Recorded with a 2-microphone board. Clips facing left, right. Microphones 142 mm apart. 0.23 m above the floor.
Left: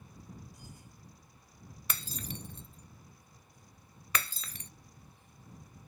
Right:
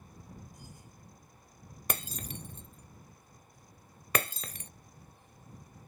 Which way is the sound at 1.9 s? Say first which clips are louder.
Right 4 dB; 50° right (ahead or behind).